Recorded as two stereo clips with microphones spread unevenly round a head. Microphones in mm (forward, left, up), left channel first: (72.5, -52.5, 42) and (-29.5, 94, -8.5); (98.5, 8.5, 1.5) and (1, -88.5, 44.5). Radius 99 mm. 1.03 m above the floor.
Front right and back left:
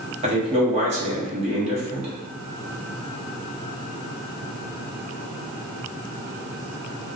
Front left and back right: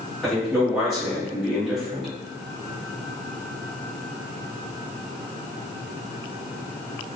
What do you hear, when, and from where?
0.2 s a man speaking: 120° left, 1.1 m